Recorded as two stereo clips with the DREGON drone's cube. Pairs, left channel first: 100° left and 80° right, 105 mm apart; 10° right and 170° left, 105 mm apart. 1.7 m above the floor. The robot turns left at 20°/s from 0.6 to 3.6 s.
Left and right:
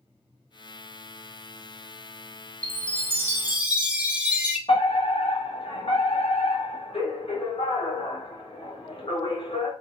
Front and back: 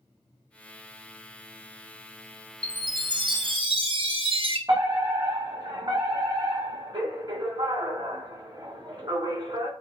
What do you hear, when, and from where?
2.6 s a chime: 140° right, 0.8 m; by 4.6 s 155° right, 0.8 m
4.7 s a fire alarm: 125° left, 2 m